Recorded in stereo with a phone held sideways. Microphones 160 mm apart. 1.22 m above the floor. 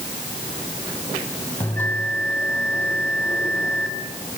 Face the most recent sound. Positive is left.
turn(degrees=10)  # may be behind; listen again after turning